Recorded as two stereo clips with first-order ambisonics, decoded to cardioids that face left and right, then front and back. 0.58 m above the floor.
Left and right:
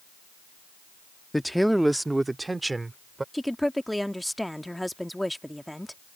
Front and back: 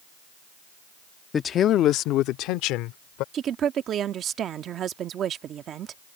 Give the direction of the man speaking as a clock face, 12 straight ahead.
12 o'clock.